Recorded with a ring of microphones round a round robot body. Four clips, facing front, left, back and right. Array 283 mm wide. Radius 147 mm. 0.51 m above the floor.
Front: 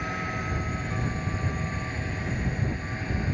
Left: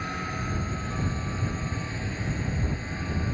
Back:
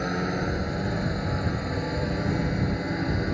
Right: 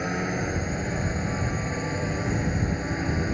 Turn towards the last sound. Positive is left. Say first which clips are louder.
# right 5 dB, back 5 dB
turn(degrees=-145)